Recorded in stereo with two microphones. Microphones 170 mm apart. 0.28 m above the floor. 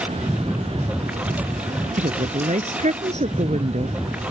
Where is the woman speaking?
45° right (ahead or behind).